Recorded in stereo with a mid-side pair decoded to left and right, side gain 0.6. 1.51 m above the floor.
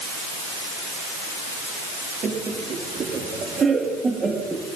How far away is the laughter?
About 3 m.